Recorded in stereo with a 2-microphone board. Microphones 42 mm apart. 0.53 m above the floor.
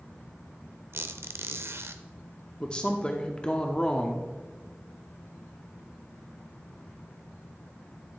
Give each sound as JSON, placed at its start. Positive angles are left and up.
{"t": 0.9, "sound": "a squeak", "side_deg": -75, "distance_m": 0.6}
{"t": 2.6, "sound": "a woman speaking", "side_deg": 20, "distance_m": 0.7}